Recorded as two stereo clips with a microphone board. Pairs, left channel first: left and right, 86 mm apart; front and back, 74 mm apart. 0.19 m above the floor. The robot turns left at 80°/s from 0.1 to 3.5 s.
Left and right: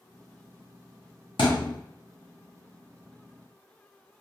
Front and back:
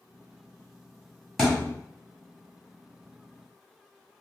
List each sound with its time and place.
1.4 s a thud: 90° left, 1.9 m; by 1.8 s 55° left, 1.9 m